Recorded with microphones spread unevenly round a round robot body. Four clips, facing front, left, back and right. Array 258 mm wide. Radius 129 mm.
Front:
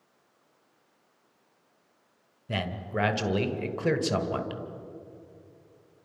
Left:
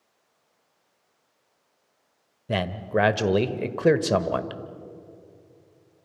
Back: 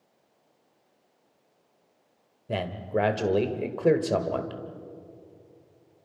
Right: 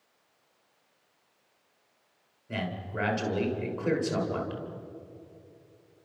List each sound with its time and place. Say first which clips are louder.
2.5 s a man speaking: left 9 dB, back 4 dB; 80° left, 1.6 m